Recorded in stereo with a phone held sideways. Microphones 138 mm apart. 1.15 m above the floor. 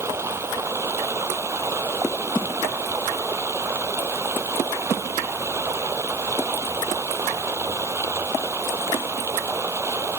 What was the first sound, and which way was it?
Running water, 20° right (ahead or behind).